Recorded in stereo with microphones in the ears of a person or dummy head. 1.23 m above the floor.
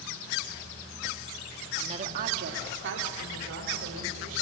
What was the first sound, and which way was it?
A woman speaking, 30° right (ahead or behind).